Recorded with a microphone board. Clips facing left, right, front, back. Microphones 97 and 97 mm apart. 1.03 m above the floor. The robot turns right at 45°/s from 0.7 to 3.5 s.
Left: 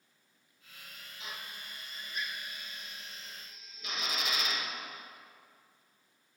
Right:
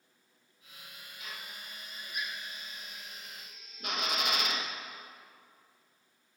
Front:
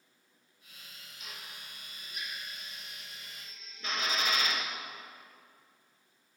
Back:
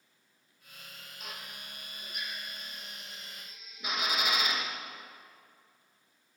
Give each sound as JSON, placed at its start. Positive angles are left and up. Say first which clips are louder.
{"t": 1.2, "sound": "a drill", "louder": "left 1 dB, back 3 dB", "azimuth_deg": 150, "distance_m": 1.2}